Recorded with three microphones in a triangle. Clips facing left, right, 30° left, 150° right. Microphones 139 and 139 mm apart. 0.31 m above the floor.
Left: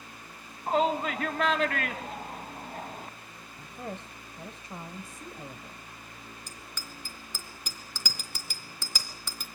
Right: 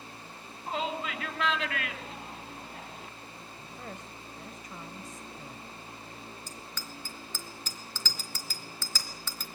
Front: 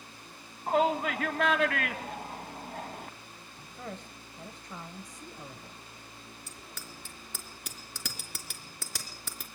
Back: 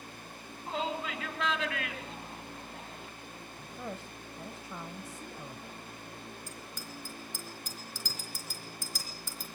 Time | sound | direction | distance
0.7 | a shout | 50° left | 2.0 m
3.6 | a woman speaking | 130° left | 1.0 m
6.5 | a bicycle bell | 15° left | 3.5 m